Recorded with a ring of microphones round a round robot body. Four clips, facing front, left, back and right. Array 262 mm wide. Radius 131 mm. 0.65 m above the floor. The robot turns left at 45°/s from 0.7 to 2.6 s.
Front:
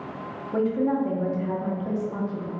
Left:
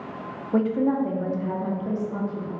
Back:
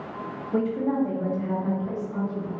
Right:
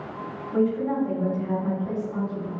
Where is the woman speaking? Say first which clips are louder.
Left 1 dB, front 1 dB; 95° left, 0.8 m; by 2.5 s 15° left, 0.8 m.